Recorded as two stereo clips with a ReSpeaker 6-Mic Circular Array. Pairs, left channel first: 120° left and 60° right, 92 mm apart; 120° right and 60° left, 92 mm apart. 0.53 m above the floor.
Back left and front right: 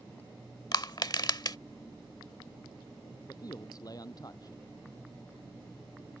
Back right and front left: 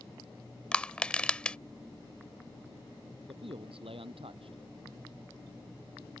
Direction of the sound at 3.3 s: 70° left.